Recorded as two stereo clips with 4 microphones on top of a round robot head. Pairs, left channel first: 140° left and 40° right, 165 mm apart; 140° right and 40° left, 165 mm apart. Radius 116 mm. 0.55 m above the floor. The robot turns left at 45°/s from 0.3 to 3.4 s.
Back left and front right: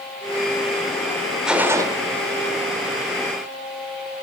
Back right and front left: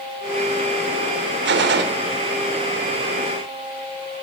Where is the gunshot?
45° left, 0.9 m; by 1.9 s 25° left, 0.9 m.